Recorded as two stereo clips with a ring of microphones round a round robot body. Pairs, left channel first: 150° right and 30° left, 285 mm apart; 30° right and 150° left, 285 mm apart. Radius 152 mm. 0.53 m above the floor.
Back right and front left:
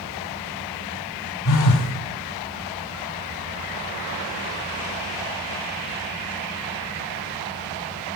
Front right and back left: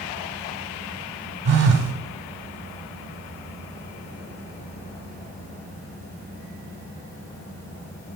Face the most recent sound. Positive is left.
turn(degrees=-160)